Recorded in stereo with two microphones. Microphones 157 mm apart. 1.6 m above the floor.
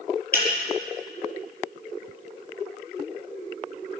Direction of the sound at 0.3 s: 70° left (ahead or behind).